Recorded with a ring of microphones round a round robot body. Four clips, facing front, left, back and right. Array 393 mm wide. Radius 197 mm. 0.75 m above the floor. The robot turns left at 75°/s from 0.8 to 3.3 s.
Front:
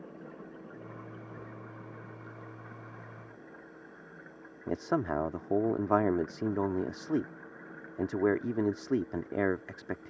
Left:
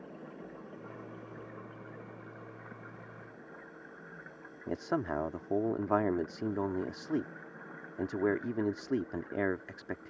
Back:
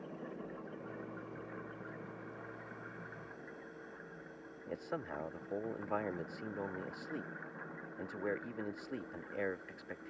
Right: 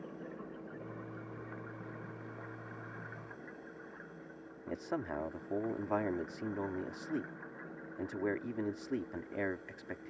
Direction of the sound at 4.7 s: 20° left.